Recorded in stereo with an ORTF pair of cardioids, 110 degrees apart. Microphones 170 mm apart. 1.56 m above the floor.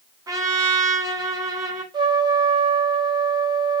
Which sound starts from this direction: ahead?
A trumpet, at 0.3 s.